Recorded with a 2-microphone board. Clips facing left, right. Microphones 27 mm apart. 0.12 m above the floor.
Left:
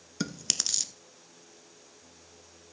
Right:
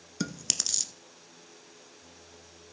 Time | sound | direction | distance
0.2 | chewing | 10° left (ahead or behind) | 0.8 m